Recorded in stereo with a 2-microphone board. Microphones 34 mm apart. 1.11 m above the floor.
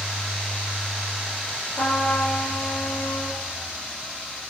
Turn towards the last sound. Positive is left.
turn(degrees=75)  # may be behind; listen again after turning